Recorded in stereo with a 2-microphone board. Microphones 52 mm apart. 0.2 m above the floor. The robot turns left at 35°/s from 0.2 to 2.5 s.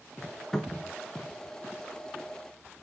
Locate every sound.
0.5 s a cupboard door: 10° left (ahead or behind), 0.7 m; by 0.9 s 25° left (ahead or behind), 0.7 m